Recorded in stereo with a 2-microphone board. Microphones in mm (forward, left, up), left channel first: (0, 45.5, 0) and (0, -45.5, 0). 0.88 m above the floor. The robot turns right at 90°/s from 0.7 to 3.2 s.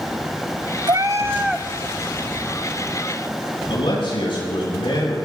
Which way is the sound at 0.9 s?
65° right.